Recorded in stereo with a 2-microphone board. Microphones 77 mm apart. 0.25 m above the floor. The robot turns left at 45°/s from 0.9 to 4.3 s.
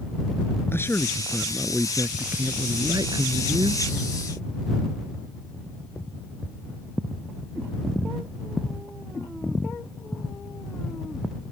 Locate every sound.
0.7 s a man speaking: 30° left; by 3.8 s 100° right